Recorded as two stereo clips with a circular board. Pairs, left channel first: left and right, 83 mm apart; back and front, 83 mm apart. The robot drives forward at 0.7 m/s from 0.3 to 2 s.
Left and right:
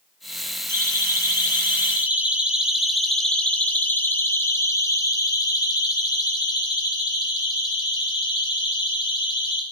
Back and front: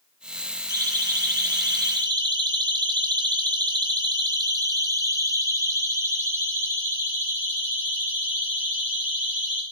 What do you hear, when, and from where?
0.7 s a siren: 35° right, 4.5 m; by 9.6 s 75° left, 8 m